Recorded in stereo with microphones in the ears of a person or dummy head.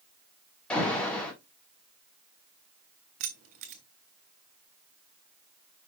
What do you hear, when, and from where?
0.7 s an alarm: 10° left (ahead or behind), 3.5 m
3.2 s keys jangling: 45° right (ahead or behind), 1.0 m